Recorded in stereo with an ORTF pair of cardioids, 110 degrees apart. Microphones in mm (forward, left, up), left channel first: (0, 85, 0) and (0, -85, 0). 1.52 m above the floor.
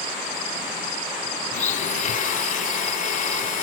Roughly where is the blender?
Ahead left.